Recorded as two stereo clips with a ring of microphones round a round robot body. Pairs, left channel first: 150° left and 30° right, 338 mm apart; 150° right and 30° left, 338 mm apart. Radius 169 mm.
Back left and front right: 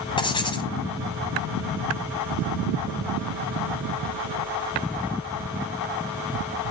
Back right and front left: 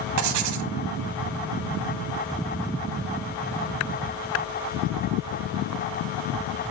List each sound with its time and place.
0.2 s writing: 75° left, 1.4 m